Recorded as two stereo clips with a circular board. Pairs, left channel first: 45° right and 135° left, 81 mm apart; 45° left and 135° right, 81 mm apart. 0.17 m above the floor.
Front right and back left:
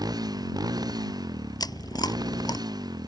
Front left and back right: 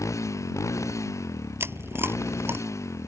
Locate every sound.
0.0 s a motorcycle: 100° left
1.6 s chewing: 75° right